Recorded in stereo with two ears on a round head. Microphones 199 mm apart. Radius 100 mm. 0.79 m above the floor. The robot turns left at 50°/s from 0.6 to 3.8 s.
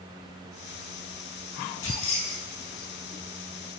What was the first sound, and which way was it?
Keys jangling, 70° left (ahead or behind).